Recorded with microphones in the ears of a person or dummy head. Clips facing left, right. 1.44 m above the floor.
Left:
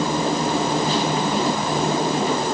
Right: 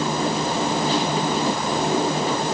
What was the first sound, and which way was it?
Only background noise.